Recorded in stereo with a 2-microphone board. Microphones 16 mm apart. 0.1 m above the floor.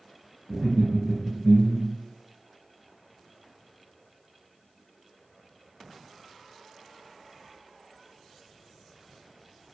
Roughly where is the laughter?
Centre.